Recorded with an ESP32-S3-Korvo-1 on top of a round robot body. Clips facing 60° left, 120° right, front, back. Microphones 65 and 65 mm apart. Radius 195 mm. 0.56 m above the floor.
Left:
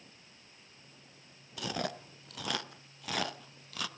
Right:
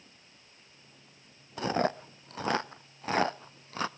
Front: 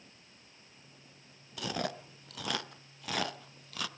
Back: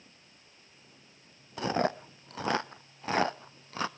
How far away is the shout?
I don't hear a shout.